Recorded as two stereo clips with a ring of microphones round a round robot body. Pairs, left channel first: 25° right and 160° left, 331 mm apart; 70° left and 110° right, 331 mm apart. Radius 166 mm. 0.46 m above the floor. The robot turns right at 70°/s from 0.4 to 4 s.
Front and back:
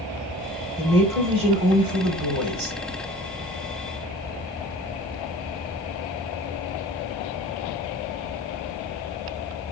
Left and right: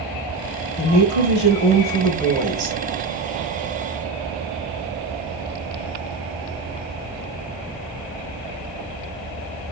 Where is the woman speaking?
45° left, 1.4 m; by 2.8 s 175° right, 1.4 m.